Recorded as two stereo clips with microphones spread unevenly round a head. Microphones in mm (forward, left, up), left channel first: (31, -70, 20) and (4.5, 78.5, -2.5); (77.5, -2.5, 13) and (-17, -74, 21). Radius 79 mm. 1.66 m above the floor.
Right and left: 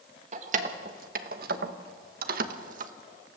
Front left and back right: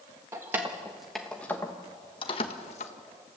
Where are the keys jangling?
150° left, 1.4 m; by 2.9 s 70° left, 1.2 m.